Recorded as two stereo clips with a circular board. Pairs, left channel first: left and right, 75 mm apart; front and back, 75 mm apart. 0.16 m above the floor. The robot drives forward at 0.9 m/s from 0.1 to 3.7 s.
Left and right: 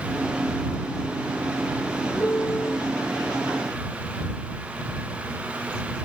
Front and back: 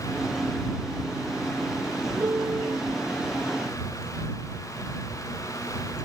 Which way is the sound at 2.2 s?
135° left.